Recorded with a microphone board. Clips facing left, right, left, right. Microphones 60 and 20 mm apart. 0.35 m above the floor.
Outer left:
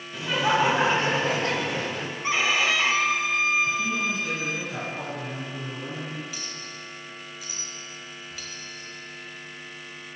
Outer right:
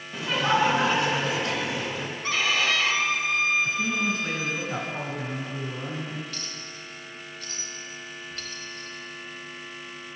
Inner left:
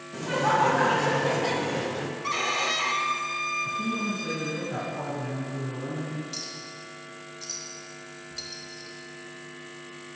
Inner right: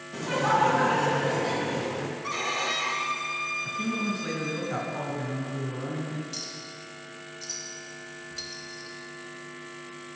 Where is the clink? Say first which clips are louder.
Outer left 1 dB, even; 10° left (ahead or behind), 1.1 m.